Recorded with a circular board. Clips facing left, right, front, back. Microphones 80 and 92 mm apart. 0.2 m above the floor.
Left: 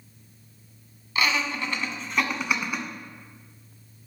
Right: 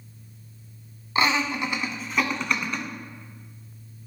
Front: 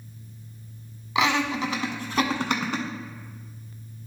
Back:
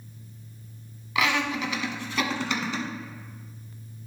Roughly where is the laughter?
Ahead right.